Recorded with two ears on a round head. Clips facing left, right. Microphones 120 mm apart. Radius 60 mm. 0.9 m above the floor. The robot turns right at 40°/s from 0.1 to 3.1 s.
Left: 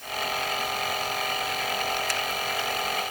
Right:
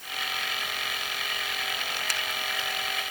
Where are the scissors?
I don't hear scissors.